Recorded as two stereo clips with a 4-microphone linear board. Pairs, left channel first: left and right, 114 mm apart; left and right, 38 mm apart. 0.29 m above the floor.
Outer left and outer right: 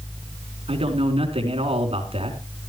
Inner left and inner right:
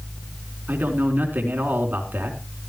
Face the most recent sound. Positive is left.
turn(degrees=-60)  # may be behind; listen again after turning